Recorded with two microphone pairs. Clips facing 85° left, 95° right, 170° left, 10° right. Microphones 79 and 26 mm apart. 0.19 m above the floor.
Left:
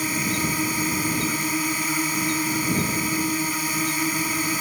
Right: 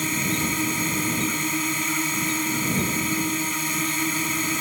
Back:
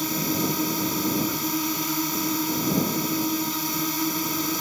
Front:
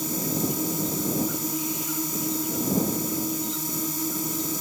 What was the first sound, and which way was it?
A drone, 165° left.